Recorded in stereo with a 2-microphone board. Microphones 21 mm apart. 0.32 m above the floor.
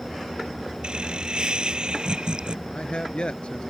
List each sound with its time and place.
0.8 s laughter: 50° right (ahead or behind)
2.6 s a man speaking: 70° left (ahead or behind)